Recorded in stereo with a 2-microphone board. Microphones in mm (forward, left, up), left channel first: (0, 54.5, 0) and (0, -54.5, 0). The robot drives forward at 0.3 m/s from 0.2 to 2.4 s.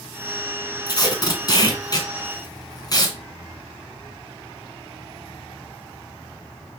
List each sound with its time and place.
0.9 s tape being pulled: 35° left (ahead or behind), 1.7 m